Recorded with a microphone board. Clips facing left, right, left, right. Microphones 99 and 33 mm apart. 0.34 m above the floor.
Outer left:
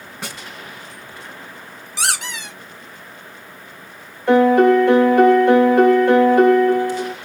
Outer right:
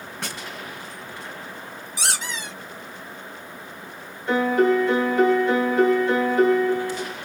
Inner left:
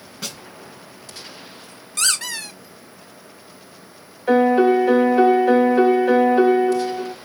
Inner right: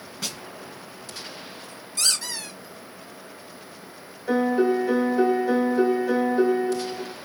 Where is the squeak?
70° left (ahead or behind), 1.2 m.